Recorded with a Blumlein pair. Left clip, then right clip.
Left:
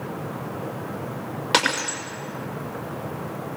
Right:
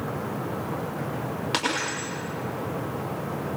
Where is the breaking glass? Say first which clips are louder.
Left 6 dB; 20° left, 6 m.